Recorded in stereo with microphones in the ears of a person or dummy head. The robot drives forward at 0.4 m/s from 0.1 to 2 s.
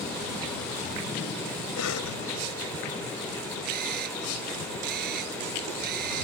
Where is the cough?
85° left.